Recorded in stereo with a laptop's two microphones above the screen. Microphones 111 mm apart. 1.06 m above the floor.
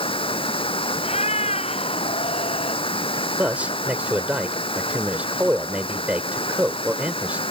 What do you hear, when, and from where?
0.0 s running water: 55° left (ahead or behind)
1.0 s a cat meowing: 70° left (ahead or behind)
3.4 s a man speaking: 10° right (ahead or behind)